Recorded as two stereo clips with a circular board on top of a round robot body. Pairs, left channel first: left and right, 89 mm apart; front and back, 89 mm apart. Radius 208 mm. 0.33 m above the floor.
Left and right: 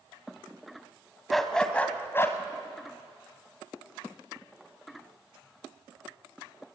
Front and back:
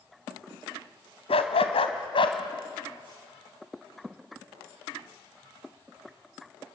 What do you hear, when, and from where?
1.3 s a dog barking: straight ahead, 1.5 m; by 2.4 s 30° left, 1.5 m